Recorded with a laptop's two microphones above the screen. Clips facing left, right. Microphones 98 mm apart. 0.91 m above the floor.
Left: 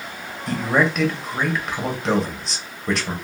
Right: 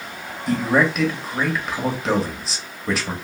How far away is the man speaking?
About 0.9 m.